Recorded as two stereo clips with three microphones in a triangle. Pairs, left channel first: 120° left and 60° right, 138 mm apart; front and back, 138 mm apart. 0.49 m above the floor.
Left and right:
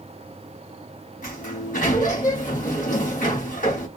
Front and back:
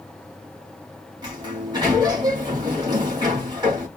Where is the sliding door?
120° left, 2.5 m.